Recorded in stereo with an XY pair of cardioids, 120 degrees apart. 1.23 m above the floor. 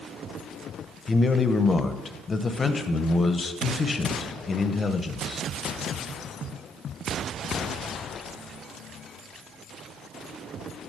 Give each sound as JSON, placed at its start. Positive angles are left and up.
{"t": 1.1, "sound": "a man speaking", "azimuth_deg": 25, "distance_m": 0.6}